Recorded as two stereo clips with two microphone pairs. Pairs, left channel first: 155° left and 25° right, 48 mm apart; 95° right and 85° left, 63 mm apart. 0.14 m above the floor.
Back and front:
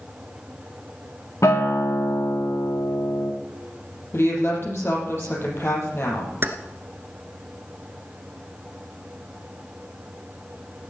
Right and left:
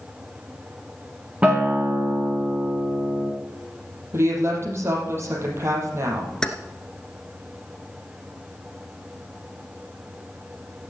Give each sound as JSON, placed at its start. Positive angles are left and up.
{"t": 1.4, "sound": "a guitar", "azimuth_deg": 155, "distance_m": 3.0}
{"t": 4.1, "sound": "a woman speaking", "azimuth_deg": 130, "distance_m": 5.0}
{"t": 6.4, "sound": "keys jangling", "azimuth_deg": -20, "distance_m": 1.3}